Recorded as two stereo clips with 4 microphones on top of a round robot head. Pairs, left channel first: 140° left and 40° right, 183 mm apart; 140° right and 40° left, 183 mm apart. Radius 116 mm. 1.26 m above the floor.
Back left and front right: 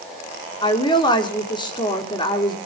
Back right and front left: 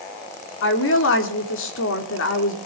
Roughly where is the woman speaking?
Behind right.